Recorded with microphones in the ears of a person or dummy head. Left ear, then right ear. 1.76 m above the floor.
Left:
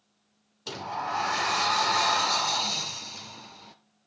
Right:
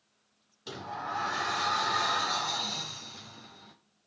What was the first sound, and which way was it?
A sliding door, 20° left (ahead or behind).